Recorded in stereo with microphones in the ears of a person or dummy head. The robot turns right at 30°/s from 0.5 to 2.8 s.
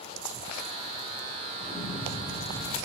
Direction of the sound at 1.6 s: Straight ahead.